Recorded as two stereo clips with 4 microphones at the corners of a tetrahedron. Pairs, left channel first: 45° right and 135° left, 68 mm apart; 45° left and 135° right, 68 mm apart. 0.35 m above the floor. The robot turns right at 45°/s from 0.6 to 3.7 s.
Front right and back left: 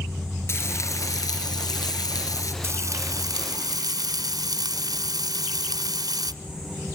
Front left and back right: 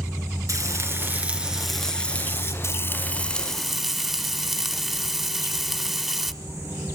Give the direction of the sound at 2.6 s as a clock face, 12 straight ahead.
9 o'clock.